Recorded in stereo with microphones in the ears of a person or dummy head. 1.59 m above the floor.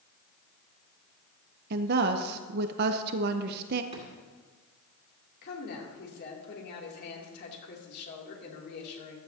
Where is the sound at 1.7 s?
55° right (ahead or behind), 0.7 m.